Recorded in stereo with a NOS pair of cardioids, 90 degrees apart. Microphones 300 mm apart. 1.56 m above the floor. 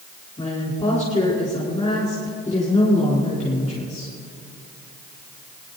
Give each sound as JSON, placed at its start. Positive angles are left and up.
{"t": 0.4, "sound": "a woman speaking", "azimuth_deg": 25, "distance_m": 4.5}